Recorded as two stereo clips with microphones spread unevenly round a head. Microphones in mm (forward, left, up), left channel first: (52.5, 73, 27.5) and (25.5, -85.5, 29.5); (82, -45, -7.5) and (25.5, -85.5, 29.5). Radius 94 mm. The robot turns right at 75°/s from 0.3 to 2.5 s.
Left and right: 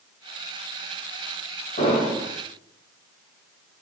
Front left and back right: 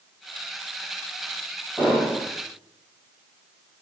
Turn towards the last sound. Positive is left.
turn(degrees=180)